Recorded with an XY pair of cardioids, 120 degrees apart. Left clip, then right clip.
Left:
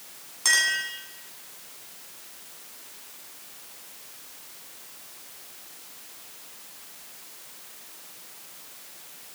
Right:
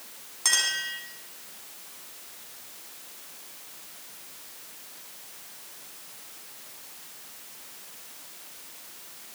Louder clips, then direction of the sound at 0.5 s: Left 3 dB; straight ahead.